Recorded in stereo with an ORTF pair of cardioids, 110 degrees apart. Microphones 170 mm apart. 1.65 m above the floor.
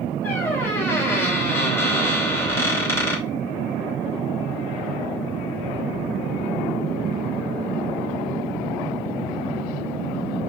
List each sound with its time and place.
0.2 s a squeak: 15° left, 2.5 m